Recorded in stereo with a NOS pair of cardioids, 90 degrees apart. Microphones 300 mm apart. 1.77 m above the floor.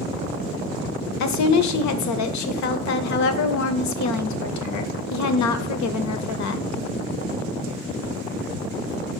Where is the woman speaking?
70° left, 0.8 m.